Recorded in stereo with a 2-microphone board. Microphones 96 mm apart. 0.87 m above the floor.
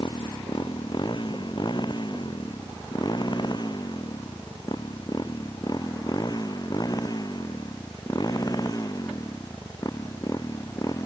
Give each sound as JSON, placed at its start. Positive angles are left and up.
{"t": 0.0, "sound": "a motorcycle", "side_deg": 55}